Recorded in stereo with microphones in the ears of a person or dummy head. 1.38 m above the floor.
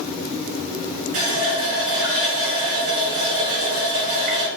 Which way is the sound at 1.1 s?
45° right (ahead or behind).